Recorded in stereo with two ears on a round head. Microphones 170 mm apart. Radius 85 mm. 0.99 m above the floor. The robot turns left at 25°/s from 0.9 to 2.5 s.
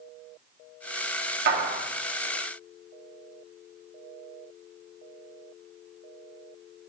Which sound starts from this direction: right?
A clap, at 1.5 s.